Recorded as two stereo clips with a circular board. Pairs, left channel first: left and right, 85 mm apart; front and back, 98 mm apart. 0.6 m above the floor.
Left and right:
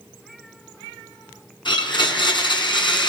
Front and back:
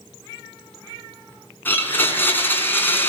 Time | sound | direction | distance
1.6 | a blender | 70° left | 4.5 m